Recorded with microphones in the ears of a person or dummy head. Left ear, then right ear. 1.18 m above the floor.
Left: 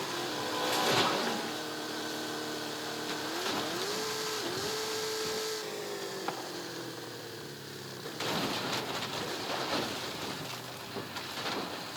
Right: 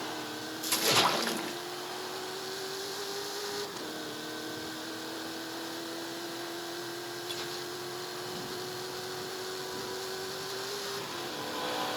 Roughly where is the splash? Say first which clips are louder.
Right 2 dB; right.